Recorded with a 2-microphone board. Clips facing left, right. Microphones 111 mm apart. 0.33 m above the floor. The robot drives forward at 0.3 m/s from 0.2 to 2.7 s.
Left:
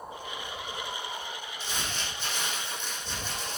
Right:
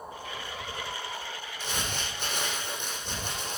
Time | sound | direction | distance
1.6 | crumpling | 70° right (ahead or behind) | 7 m